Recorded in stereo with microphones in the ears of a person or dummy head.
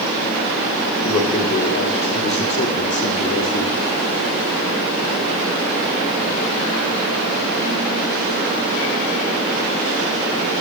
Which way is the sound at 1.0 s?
30° left (ahead or behind).